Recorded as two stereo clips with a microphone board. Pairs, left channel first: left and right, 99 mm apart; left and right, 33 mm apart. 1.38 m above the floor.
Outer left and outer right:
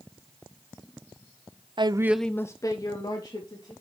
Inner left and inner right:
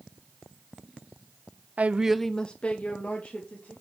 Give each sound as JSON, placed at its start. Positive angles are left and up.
{"t": 1.8, "sound": "a woman speaking", "side_deg": -55, "distance_m": 0.6}